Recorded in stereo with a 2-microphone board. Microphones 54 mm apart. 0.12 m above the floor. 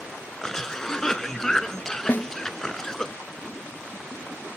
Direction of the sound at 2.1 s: 40° left (ahead or behind).